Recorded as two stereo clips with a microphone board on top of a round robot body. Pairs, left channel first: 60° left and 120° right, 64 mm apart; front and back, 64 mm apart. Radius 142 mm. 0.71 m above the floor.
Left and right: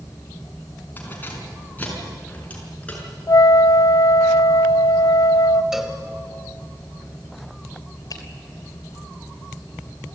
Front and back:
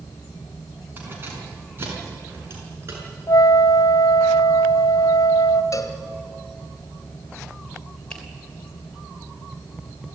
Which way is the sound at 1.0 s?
120° left.